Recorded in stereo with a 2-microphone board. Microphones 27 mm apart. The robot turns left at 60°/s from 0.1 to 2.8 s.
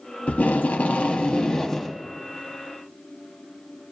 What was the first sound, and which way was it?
Tape being pulled, 105° left.